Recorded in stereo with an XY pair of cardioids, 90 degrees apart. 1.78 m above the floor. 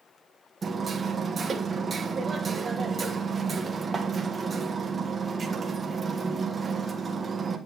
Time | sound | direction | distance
0.6 | hammering | 40° right | 1.6 m